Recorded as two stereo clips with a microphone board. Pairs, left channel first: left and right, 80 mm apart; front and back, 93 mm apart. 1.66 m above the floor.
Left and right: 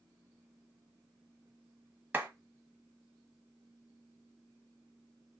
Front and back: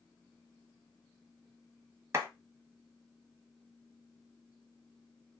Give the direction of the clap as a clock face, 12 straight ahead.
5 o'clock.